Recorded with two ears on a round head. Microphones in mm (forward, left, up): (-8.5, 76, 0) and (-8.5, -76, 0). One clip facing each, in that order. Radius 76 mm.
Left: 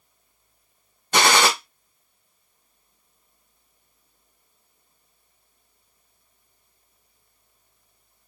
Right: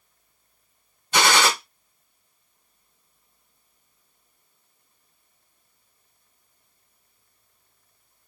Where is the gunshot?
40° left (ahead or behind), 0.9 m.